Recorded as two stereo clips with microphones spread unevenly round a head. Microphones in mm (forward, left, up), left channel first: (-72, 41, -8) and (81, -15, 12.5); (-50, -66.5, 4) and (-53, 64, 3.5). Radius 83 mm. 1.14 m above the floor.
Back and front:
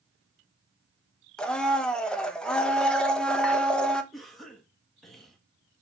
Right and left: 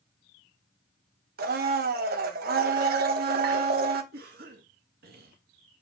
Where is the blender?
75° left, 1.2 m.